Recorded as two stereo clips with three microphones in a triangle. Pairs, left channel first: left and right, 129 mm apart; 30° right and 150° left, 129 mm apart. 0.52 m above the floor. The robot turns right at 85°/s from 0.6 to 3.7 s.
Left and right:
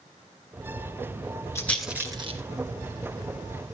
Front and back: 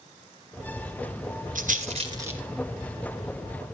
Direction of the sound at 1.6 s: 160° left.